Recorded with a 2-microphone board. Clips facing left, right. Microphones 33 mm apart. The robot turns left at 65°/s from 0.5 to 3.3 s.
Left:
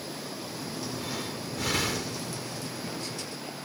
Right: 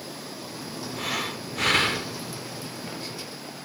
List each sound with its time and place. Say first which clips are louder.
1.0 s breathing: right 5 dB; 80° right, 1.0 m; by 2.2 s 160° right, 1.0 m